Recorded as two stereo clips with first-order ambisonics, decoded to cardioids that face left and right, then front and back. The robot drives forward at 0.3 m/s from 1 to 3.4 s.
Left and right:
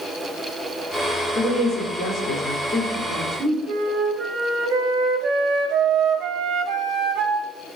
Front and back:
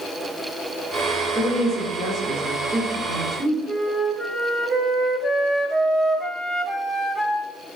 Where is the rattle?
I don't hear a rattle.